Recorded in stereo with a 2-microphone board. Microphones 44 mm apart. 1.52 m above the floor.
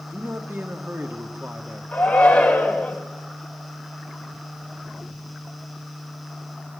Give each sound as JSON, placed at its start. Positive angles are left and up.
{"t": 0.1, "sound": "a man speaking", "side_deg": -60, "distance_m": 2.5}
{"t": 1.9, "sound": "a shout", "side_deg": 25, "distance_m": 6.0}